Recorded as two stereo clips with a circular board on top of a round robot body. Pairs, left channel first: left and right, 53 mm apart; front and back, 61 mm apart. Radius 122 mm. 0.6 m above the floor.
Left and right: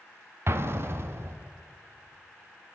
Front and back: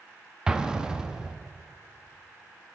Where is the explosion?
105° right, 0.8 m.